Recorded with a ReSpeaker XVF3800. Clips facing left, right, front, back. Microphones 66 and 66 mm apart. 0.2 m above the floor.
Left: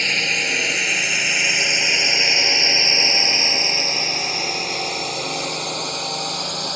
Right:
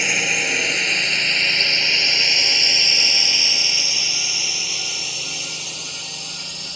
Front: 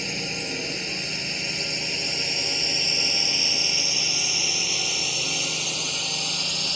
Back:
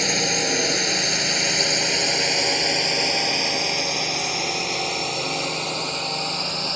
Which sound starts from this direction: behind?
A drone, at 0.0 s.